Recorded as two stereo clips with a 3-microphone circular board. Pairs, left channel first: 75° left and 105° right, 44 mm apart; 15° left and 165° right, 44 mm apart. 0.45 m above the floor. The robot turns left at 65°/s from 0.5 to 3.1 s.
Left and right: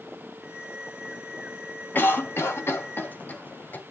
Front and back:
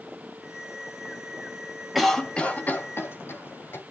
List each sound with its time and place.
1.9 s a cough: 105° left, 2 m; by 3.8 s 30° left, 2 m